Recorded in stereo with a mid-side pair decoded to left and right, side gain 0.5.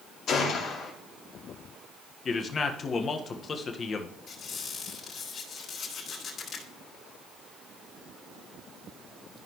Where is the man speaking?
40° left, 1.5 m.